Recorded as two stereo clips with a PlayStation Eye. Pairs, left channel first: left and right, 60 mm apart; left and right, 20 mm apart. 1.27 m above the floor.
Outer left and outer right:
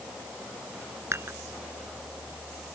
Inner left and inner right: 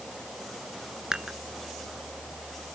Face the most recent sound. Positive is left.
turn(degrees=-45)  # may be behind; listen again after turning